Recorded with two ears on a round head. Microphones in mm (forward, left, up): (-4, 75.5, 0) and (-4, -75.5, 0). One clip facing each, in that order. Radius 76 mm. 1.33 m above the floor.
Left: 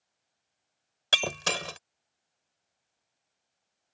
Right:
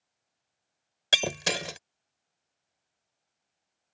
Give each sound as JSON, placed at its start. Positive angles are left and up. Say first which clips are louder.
{"t": 1.1, "sound": "breaking glass", "louder": "right 2 dB", "side_deg": -15}